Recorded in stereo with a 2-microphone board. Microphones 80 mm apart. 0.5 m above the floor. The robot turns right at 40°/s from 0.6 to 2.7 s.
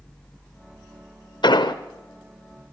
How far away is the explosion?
About 0.8 m.